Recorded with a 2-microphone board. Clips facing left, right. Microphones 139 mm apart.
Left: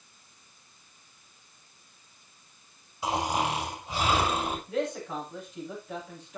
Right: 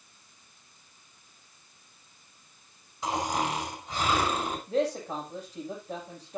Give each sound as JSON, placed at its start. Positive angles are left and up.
{"t": 3.0, "sound": "snoring", "side_deg": 10, "distance_m": 7.0}
{"t": 4.7, "sound": "a man speaking", "side_deg": -40, "distance_m": 7.5}